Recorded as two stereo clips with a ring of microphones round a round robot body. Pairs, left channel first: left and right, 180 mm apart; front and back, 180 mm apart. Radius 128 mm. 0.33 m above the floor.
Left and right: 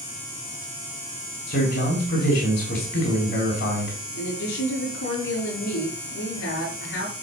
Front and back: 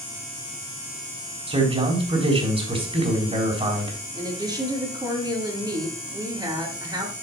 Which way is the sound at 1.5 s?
125° left.